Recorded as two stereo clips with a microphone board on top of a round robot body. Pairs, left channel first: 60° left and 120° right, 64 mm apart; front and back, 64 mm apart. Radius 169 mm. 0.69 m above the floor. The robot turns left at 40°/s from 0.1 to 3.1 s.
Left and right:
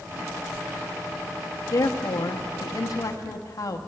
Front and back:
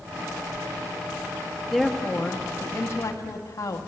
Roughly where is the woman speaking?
Left.